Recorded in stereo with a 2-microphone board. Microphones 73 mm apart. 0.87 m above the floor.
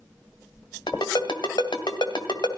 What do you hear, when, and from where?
0.9 s a ringtone: 80° left, 2 m